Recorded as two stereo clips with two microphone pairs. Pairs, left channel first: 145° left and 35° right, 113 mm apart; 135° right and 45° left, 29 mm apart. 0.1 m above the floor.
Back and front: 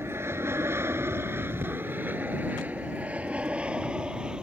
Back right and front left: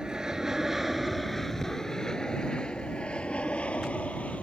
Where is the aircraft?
10° left; by 4.4 s 115° right.